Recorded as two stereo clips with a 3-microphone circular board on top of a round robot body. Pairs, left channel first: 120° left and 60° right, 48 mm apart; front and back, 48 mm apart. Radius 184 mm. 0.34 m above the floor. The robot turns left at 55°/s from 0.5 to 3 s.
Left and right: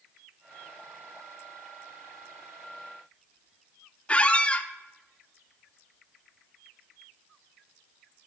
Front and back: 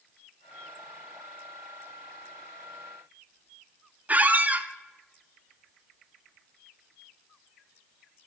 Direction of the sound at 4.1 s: 165° left.